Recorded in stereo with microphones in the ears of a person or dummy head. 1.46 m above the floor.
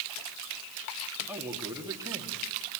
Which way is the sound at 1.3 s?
15° right (ahead or behind).